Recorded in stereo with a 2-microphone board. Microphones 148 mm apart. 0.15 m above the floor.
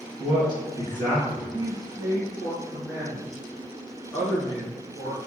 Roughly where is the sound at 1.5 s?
Centre.